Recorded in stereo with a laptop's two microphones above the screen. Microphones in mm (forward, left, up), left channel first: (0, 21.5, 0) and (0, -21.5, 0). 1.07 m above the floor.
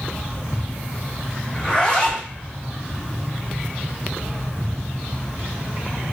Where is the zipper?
15° left (ahead or behind), 0.8 m.